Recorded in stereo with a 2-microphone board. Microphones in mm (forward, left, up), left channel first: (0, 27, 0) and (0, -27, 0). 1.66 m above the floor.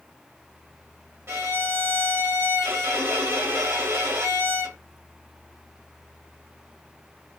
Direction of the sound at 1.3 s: 50° right (ahead or behind).